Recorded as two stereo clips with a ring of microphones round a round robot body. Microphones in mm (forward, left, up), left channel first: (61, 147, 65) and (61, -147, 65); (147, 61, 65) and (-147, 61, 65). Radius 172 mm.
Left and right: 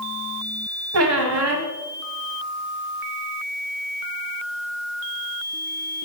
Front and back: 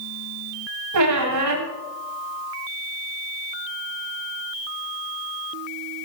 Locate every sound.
0.9 s a squeak: 140° right, 1.2 m